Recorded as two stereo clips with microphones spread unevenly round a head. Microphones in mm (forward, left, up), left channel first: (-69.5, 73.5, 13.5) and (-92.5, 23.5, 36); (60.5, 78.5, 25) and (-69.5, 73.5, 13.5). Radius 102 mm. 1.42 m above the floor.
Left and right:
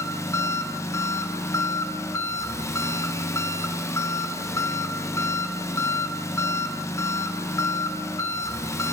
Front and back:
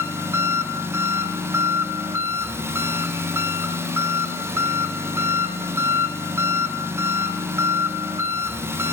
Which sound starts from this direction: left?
An engine running, at 0.0 s.